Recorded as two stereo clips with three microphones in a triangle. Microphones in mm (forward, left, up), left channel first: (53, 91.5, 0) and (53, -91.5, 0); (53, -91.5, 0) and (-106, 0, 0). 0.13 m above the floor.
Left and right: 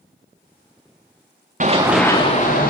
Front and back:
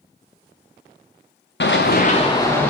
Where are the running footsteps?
45° right, 0.7 m; by 2.7 s 50° left, 1.2 m.